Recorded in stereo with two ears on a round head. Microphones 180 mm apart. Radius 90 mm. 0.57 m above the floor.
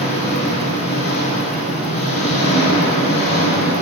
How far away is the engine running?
About 6.5 m.